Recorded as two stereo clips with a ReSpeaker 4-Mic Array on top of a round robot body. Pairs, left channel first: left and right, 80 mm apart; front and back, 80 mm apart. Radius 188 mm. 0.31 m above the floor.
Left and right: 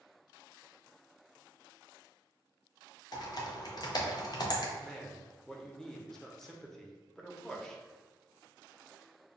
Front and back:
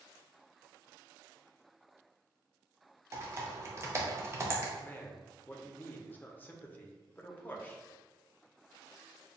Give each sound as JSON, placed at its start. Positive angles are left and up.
{"t": 3.1, "sound": "typing on a keyboard", "azimuth_deg": 125, "distance_m": 0.9}
{"t": 4.8, "sound": "a man speaking", "azimuth_deg": 15, "distance_m": 0.9}